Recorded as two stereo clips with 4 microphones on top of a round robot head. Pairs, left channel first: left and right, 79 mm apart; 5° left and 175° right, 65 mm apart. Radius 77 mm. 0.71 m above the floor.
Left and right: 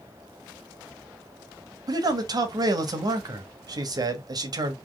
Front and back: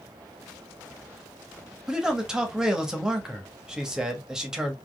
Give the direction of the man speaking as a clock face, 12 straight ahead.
3 o'clock.